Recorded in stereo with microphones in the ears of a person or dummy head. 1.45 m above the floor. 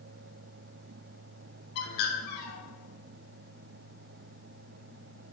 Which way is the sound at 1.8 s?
50° left (ahead or behind).